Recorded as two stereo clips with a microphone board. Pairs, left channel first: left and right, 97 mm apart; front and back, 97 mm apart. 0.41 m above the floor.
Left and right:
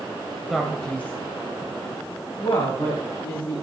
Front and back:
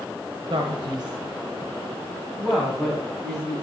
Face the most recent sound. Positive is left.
turn(degrees=85)